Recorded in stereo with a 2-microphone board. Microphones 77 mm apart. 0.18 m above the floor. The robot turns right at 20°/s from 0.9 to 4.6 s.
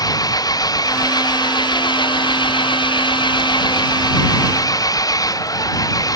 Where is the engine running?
55° left; by 6.2 s 130° left.